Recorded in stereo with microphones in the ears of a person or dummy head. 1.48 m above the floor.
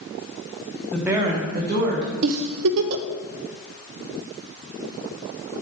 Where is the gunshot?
No gunshot in this recording.